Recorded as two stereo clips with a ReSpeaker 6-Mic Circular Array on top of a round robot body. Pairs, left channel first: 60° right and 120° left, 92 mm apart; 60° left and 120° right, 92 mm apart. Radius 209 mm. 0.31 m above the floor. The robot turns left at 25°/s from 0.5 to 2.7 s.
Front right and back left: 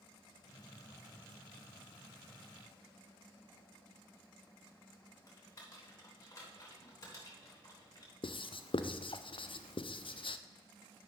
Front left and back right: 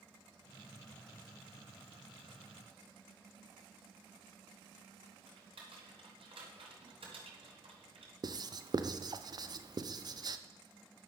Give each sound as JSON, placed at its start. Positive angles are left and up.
{"t": 5.3, "sound": "typing on a keyboard", "azimuth_deg": -110, "distance_m": 3.5}
{"t": 8.2, "sound": "writing", "azimuth_deg": -80, "distance_m": 0.6}